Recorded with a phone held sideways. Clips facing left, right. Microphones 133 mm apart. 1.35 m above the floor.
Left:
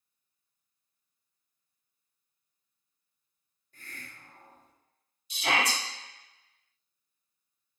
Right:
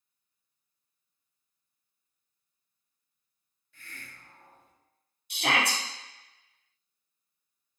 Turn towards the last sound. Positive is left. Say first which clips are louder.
# right 1 dB
turn(degrees=-70)  # may be behind; listen again after turning